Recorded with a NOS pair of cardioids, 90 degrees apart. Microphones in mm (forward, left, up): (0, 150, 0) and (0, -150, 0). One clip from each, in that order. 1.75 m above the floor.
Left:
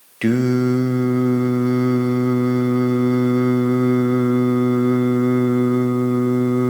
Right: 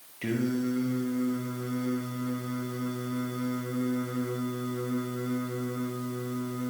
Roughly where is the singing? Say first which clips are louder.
Left 12 dB; left.